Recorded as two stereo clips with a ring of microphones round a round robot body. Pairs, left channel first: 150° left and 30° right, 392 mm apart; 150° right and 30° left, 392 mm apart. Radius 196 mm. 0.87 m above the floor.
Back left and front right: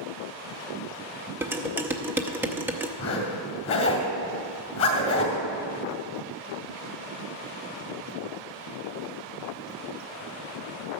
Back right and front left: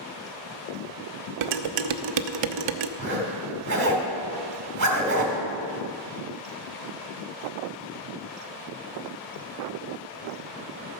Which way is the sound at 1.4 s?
55° left.